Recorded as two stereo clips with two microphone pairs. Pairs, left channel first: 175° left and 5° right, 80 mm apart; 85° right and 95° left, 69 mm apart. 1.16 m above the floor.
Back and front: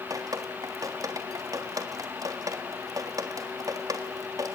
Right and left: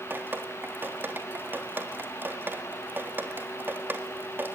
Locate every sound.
0.1 s dripping: 35° left, 1.7 m